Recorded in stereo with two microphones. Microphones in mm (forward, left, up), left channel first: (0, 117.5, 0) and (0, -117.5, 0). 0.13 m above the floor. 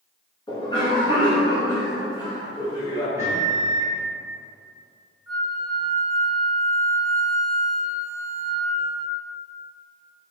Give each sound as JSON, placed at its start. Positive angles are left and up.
{"t": 0.5, "sound": "a cough", "side_deg": 20, "distance_m": 1.1}
{"t": 3.2, "sound": "a microwave", "side_deg": -15, "distance_m": 0.9}
{"t": 5.3, "sound": "a flute", "side_deg": -15, "distance_m": 1.4}